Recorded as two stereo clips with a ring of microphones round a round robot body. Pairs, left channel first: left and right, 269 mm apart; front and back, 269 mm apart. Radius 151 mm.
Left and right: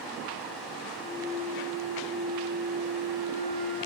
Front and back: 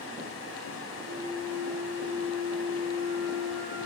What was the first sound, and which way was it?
A flute, 55° right.